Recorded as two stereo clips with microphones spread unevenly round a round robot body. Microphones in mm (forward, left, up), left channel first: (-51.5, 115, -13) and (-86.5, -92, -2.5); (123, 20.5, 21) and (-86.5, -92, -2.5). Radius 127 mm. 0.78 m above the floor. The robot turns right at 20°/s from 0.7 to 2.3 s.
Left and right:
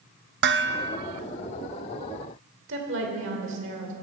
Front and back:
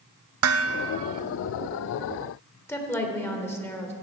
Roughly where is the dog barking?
I don't hear a dog barking.